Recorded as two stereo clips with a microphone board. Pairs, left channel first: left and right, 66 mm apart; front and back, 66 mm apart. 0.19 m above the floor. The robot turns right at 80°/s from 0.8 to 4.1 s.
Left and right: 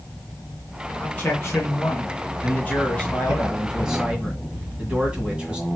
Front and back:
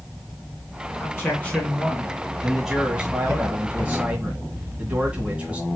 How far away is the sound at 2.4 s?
About 1.7 m.